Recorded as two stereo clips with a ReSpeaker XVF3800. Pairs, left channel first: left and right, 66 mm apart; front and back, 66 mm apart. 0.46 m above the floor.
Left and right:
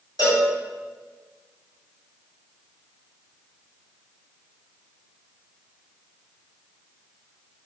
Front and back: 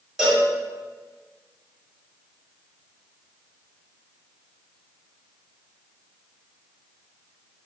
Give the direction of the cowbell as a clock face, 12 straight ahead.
9 o'clock.